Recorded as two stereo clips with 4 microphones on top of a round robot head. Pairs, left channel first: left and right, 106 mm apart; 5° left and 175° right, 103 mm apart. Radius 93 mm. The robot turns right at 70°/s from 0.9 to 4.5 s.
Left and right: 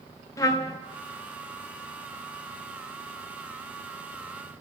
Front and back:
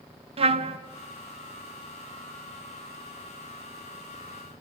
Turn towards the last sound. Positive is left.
turn(degrees=50)